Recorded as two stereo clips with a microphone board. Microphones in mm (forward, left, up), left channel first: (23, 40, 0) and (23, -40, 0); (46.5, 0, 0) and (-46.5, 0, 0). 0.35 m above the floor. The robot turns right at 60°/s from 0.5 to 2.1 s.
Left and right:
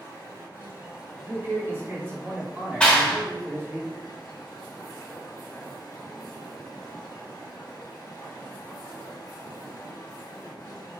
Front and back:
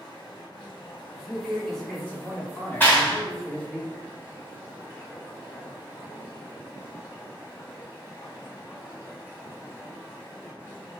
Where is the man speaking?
110° right, 1.3 m; by 3.8 s 60° right, 1.3 m.